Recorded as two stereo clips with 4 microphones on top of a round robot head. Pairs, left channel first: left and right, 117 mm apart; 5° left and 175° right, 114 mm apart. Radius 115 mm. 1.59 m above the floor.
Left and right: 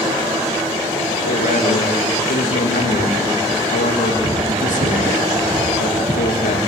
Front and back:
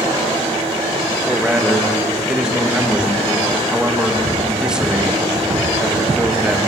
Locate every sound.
1.2 s a man speaking: 100° left, 2.5 m